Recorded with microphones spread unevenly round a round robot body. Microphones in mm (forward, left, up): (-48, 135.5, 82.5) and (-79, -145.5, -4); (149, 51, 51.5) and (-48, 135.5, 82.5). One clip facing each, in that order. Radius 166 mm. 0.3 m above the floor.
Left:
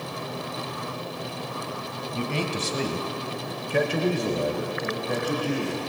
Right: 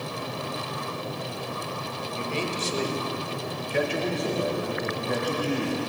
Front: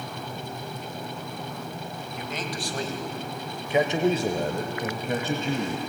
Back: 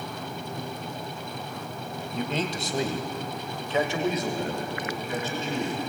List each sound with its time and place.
2.1 s a man speaking: 95° left, 2 m; by 5.8 s 20° right, 2.5 m